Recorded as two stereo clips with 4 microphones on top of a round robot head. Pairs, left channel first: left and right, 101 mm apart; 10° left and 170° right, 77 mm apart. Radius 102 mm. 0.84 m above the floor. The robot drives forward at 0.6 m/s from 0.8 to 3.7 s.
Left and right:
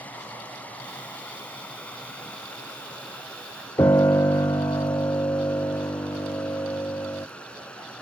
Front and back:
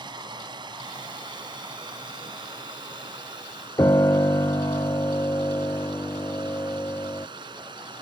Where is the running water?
165° left; by 8.0 s 170° left.